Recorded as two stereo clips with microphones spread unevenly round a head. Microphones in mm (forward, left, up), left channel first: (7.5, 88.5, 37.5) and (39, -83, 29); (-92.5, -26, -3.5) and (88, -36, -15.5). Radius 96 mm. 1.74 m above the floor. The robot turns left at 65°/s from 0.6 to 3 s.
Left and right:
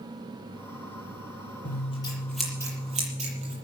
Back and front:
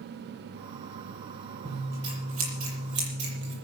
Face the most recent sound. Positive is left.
turn(degrees=-30)